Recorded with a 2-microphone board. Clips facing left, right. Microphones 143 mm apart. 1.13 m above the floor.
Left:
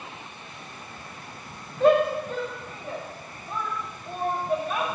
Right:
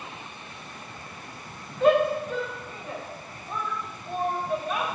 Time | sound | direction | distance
1.8 | a shout | 40° left (ahead or behind) | 2.5 m